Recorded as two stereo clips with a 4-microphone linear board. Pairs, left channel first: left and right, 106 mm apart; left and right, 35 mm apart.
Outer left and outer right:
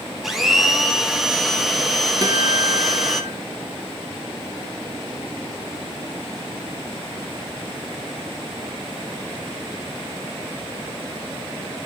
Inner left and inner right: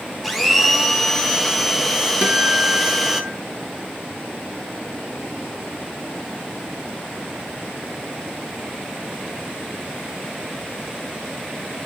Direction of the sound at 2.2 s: 35° right (ahead or behind).